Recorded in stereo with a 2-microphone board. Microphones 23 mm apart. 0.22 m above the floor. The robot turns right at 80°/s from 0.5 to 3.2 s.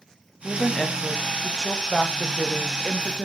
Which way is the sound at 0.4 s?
15° left (ahead or behind).